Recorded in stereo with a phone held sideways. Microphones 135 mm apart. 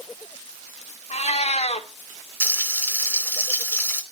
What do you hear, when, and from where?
1.1 s a cat meowing: 55° left (ahead or behind), 1.9 m
2.4 s frying: 15° left (ahead or behind), 3 m